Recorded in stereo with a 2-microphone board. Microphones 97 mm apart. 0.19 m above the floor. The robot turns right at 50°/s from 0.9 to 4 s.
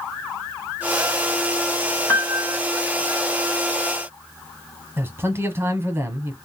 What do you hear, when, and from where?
2.1 s a piano: 30° left (ahead or behind), 1.1 m
5.0 s a man speaking: 25° right (ahead or behind), 1.1 m